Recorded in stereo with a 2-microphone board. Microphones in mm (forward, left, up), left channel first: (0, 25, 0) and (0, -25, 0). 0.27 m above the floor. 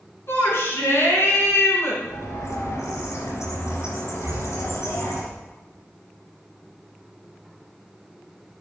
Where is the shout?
55° left (ahead or behind), 4 m.